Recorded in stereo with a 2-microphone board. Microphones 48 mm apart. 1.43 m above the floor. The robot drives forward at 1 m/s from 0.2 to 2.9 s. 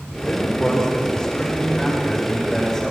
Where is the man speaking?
20° left (ahead or behind), 5.5 m; by 2.9 s 15° left (ahead or behind), 8 m.